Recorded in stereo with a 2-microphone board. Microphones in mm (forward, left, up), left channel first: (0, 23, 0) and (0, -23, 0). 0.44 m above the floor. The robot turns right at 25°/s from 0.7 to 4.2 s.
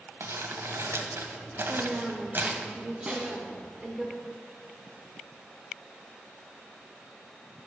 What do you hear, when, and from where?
0.2 s crumpling: 90° right, 1.2 m; by 2.7 s 40° right, 1.2 m
1.7 s a woman speaking: 85° right, 1.1 m; by 4.1 s 25° right, 1.1 m
3.1 s a snare drum: 25° right (ahead or behind), 1.5 m; by 3.4 s 35° right (ahead or behind), 1.5 m